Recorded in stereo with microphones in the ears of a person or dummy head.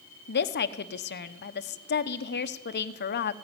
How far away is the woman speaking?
About 0.9 m.